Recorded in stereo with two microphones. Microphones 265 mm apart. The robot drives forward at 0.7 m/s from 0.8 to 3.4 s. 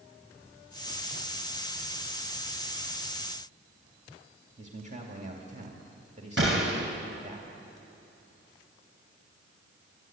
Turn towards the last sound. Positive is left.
turn(degrees=-50)  # may be behind; listen again after turning